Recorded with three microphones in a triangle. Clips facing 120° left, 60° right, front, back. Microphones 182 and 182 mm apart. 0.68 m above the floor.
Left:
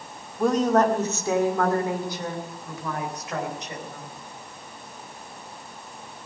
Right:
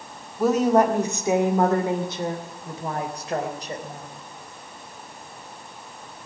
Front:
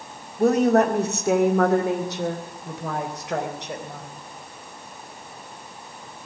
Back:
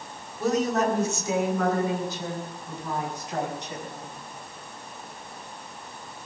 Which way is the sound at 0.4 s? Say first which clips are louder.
Right 2 dB, front 7 dB; 25° left.